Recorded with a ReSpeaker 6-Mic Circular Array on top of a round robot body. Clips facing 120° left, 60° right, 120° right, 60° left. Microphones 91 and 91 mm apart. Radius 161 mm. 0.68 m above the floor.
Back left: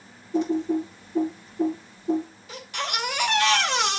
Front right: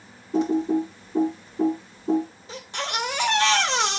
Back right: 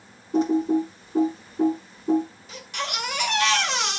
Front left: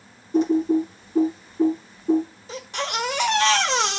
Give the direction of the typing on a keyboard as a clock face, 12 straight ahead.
2 o'clock.